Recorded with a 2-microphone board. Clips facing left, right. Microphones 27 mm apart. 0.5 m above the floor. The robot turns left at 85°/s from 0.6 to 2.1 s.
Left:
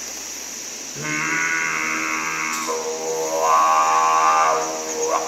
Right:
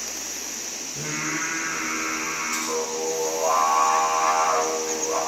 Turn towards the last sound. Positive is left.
turn(degrees=45)